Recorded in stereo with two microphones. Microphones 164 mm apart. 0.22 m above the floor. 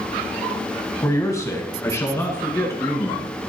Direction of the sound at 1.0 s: 20° left (ahead or behind).